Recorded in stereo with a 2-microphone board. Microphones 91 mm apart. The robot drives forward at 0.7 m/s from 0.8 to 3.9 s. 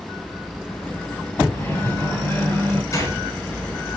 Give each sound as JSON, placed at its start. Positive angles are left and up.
{"t": 1.5, "sound": "a microwave", "side_deg": 30, "distance_m": 4.0}
{"t": 2.9, "sound": "a gunshot", "side_deg": 35, "distance_m": 5.0}